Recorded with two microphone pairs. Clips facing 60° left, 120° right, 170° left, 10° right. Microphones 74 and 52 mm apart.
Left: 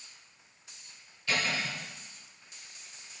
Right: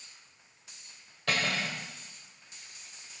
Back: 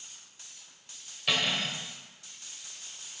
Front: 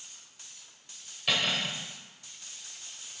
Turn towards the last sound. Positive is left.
turn(degrees=-100)